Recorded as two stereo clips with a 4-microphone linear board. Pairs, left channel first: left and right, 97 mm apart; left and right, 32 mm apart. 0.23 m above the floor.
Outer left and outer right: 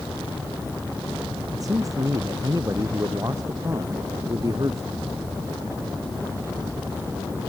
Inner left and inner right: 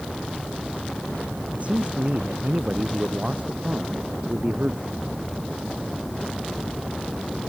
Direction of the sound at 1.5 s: 35° right (ahead or behind).